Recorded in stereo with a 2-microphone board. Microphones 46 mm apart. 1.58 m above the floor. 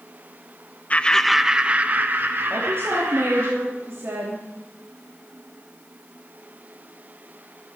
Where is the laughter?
30° left (ahead or behind), 0.7 m; by 3.5 s 55° right (ahead or behind), 2.5 m.